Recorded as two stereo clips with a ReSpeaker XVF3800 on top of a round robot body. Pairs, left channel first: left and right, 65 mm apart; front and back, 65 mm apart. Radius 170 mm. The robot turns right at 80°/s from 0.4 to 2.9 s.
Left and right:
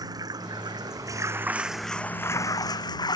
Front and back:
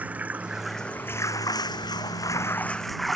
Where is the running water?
110° right; by 3.2 s 90° left.